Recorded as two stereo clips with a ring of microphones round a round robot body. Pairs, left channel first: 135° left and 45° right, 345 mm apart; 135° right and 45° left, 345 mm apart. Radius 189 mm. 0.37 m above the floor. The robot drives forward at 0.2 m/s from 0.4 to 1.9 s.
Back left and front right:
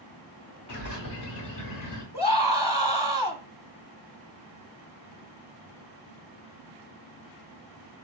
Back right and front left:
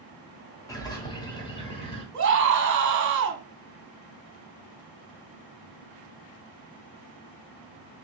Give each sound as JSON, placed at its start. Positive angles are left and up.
{"t": 0.7, "sound": "a bird", "azimuth_deg": 145, "distance_m": 1.3}
{"t": 2.1, "sound": "a scream", "azimuth_deg": 70, "distance_m": 1.0}